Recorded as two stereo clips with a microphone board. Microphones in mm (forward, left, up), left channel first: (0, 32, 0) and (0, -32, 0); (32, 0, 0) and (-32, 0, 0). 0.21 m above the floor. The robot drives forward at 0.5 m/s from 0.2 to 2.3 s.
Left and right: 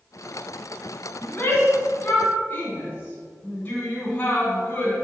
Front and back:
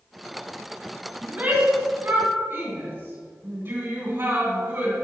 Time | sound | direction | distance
1.2 | a shout | 130° left | 2 m